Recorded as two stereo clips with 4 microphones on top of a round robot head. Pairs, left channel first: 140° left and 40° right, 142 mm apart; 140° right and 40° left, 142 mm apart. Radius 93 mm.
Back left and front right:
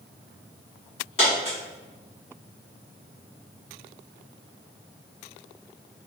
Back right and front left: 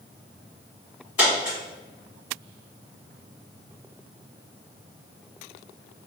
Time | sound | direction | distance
1.2 | a dropped coin | 115° left | 1.4 m